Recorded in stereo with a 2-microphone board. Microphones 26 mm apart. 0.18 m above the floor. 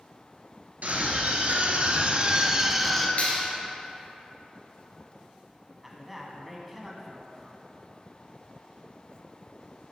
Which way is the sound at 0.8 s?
70° right (ahead or behind).